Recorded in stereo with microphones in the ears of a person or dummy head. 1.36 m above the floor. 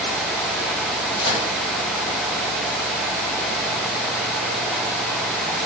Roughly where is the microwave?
Left.